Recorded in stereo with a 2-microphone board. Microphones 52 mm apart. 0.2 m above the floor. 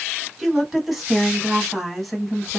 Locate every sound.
0.4 s a woman speaking: 5° right (ahead or behind), 1.5 m; by 2.6 s centre (ahead or behind), 1.2 m